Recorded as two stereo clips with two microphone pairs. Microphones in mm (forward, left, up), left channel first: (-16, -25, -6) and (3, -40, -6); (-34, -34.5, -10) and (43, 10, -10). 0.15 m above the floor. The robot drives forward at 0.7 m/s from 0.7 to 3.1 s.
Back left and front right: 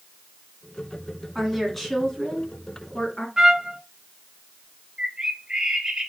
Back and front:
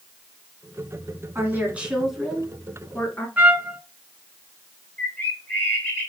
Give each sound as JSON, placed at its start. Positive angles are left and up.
{"t": 1.4, "sound": "a woman speaking", "azimuth_deg": 45, "distance_m": 1.3}
{"t": 3.4, "sound": "a trumpet", "azimuth_deg": -10, "distance_m": 0.6}
{"t": 5.0, "sound": "a bird", "azimuth_deg": -90, "distance_m": 1.3}